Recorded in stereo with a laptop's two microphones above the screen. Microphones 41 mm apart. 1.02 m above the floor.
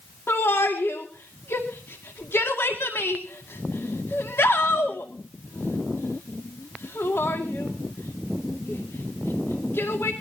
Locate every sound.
0.3 s a shout: 75° left (ahead or behind), 2 m